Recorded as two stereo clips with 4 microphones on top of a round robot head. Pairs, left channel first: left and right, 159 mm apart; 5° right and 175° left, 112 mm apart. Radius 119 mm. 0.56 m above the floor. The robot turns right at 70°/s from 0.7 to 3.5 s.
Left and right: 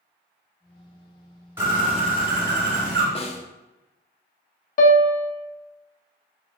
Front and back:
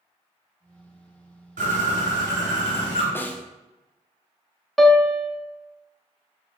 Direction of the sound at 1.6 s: 165° right.